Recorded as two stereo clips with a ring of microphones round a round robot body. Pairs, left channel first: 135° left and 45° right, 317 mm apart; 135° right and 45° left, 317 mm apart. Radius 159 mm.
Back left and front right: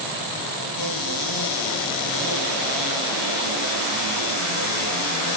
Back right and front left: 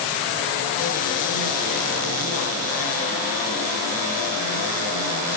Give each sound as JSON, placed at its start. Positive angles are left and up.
{"t": 0.8, "sound": "a cupboard door", "azimuth_deg": 160, "distance_m": 7.5}